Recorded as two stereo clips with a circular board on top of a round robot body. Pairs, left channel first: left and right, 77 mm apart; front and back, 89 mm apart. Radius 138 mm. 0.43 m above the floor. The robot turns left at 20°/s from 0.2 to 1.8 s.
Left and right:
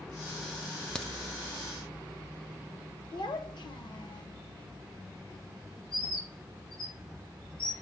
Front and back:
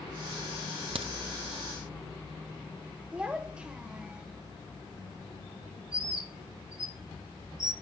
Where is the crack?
170° left, 0.9 m; by 1.1 s 165° left, 0.9 m.